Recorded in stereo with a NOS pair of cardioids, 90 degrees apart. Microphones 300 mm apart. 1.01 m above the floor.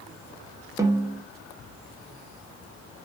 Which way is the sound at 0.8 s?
10° right.